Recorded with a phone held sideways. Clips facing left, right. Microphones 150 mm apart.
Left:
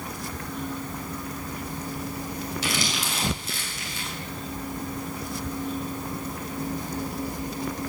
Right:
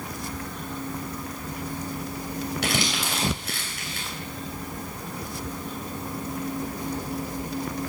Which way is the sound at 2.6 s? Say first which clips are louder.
Right 2 dB; 65° right (ahead or behind).